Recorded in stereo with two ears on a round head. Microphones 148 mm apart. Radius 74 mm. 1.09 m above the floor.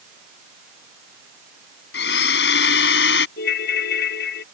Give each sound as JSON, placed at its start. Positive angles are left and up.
{"t": 1.9, "sound": "a blender", "side_deg": 70}
{"t": 3.4, "sound": "a ringtone", "side_deg": 65}